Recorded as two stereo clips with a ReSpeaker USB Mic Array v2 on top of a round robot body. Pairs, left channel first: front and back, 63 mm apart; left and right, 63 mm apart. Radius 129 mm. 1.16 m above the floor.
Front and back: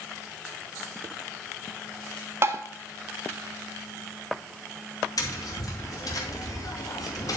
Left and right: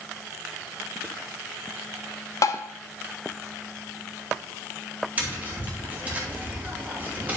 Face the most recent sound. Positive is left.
turn(degrees=-25)